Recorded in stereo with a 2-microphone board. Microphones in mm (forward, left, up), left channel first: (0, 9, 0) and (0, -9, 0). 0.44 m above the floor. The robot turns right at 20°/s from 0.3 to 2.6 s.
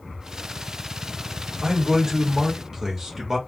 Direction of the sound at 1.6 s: 35° right (ahead or behind).